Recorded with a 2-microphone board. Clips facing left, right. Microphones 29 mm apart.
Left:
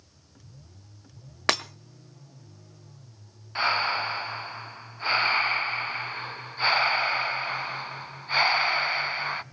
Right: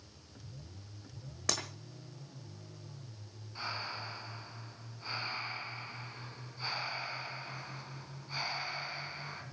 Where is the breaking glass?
55° left (ahead or behind), 1.1 m.